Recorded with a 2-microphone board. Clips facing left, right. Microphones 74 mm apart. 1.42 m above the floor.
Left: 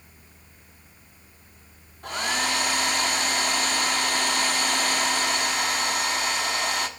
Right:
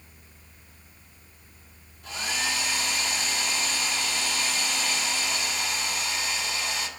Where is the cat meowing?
No cat meowing in this recording.